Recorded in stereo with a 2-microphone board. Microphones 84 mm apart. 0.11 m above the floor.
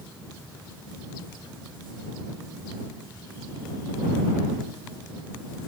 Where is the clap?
No clap in this recording.